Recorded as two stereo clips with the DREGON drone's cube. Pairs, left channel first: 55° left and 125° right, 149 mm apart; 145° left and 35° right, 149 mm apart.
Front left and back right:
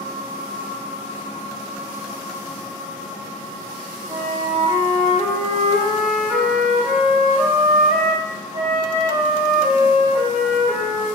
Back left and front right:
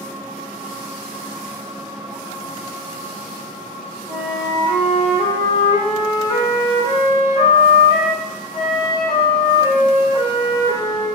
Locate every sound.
4.1 s a flute: 160° right, 1.2 m